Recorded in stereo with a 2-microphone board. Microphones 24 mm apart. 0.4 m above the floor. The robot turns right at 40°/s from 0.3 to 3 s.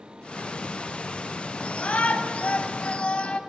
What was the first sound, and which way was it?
A shout, 65° left.